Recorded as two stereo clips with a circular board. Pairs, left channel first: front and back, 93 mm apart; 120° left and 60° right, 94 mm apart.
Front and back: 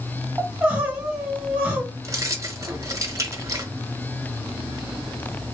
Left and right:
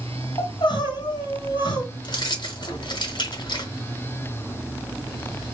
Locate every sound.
0.4 s crying: 105° left, 1.8 m
2.0 s keys jangling: 135° left, 1.1 m